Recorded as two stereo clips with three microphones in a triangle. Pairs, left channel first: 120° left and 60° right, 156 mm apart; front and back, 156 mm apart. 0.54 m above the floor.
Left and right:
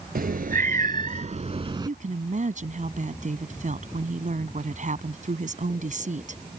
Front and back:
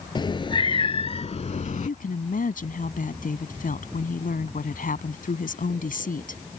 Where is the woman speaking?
25° right.